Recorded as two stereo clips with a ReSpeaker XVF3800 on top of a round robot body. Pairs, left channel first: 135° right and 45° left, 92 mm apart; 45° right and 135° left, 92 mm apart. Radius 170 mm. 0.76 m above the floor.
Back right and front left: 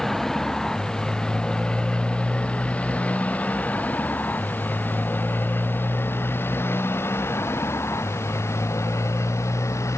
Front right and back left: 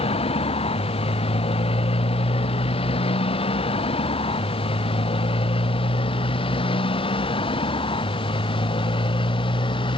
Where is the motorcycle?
50° right; by 10.0 s 75° right.